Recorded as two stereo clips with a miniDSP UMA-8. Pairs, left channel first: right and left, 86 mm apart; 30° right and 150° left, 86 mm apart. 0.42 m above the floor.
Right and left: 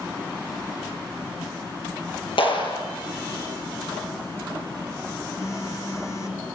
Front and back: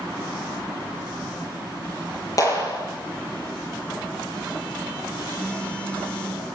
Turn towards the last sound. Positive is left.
turn(degrees=-100)